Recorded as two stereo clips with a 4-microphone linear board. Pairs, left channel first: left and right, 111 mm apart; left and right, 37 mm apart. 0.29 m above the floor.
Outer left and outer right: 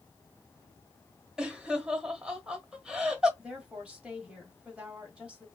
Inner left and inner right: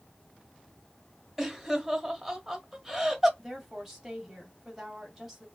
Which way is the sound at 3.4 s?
10° right (ahead or behind).